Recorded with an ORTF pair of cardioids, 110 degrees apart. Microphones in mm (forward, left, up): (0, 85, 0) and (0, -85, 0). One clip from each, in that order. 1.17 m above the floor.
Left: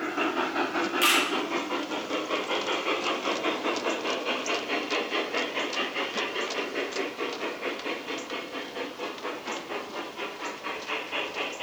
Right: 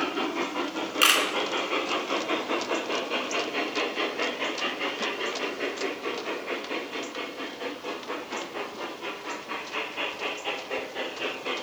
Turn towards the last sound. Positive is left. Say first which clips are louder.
# right 2 dB
turn(degrees=-40)